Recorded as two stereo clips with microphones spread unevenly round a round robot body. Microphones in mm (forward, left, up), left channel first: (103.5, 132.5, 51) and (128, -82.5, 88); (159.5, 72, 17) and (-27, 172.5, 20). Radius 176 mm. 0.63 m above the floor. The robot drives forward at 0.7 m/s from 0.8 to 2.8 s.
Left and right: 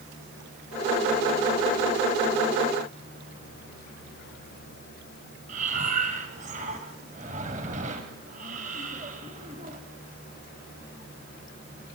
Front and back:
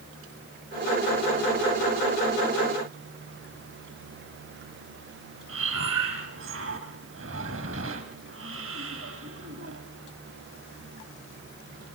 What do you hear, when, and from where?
5.5 s breathing: 150° right, 1.1 m